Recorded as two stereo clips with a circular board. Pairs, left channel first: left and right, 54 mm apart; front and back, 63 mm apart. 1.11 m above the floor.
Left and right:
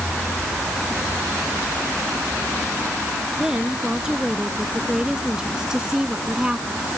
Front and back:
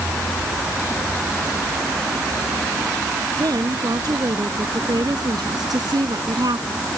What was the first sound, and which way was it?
A woman speaking, 170° right.